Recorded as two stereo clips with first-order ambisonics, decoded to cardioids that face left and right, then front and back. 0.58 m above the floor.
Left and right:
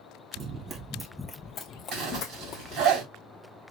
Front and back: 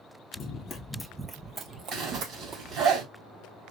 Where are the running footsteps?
45° right, 0.8 m; by 2.9 s 135° left, 1.4 m.